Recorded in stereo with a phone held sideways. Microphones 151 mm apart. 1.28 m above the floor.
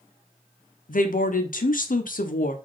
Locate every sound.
0.9 s a woman speaking: 65° left (ahead or behind), 0.5 m